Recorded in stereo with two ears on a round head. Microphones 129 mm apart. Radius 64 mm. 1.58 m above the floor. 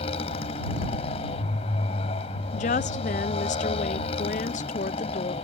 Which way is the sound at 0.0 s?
45° left (ahead or behind).